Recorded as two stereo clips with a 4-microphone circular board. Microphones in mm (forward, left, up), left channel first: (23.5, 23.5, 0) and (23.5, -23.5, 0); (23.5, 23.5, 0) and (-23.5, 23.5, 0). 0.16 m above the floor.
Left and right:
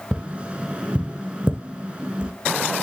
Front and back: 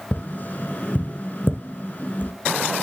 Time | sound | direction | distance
0.1 | tapping | 30° right | 1.0 m